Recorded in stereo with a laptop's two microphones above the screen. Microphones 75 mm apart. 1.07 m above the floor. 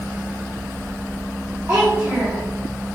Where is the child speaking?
25° right (ahead or behind), 1.1 m.